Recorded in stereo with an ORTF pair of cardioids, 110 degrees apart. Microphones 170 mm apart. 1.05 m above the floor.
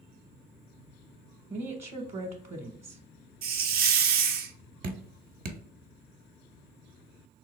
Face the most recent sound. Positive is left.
turn(degrees=-50)